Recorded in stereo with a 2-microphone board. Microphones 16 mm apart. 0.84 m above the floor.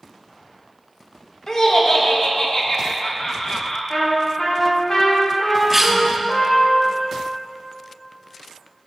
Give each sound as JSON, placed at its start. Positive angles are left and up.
{"t": 1.5, "sound": "laughter", "side_deg": 40, "distance_m": 0.9}
{"t": 3.9, "sound": "a trumpet", "side_deg": 50, "distance_m": 1.5}
{"t": 5.7, "sound": "a cough", "side_deg": -10, "distance_m": 0.6}